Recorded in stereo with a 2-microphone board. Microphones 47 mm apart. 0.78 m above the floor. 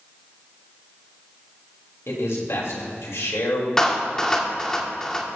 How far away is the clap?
About 1.2 m.